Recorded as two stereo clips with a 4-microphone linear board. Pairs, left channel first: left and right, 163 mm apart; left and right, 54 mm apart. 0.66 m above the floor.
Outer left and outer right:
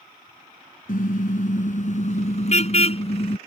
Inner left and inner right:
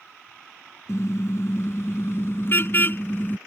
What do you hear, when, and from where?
0.9 s a car horn: 55° left (ahead or behind); by 3.4 s 35° left (ahead or behind)